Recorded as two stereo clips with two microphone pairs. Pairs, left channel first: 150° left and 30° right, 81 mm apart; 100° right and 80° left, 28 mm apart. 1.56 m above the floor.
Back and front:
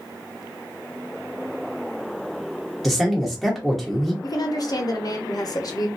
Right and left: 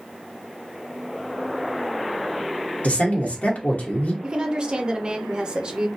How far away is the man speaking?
About 1.0 m.